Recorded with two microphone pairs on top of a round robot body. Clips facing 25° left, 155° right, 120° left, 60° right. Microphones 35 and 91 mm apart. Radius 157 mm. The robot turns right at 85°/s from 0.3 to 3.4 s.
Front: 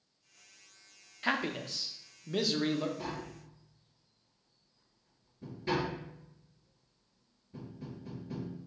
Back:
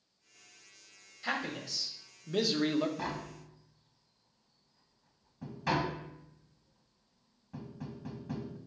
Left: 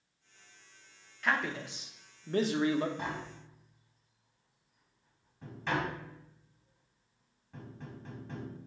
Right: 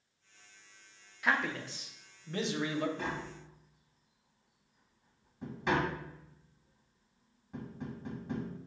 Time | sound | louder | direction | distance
1.2 | a man speaking | front 3 dB, even | 15° left | 0.9 m
3.0 | tapping | back 2 dB, even | 175° right | 0.9 m